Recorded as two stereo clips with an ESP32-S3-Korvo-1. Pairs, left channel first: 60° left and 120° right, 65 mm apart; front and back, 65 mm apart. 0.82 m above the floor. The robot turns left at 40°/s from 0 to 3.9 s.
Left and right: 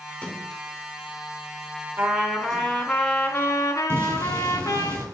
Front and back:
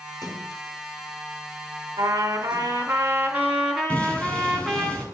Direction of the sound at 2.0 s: 170° left.